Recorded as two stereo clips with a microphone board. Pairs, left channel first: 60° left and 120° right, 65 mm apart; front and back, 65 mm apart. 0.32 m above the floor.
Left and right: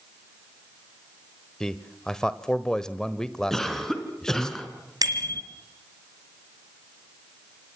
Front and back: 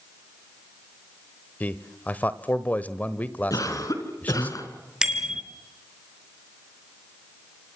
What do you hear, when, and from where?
1.6 s a man speaking: 10° right, 1.2 m
3.5 s a cough: 25° right, 4.5 m
5.0 s a bicycle bell: 100° right, 3.5 m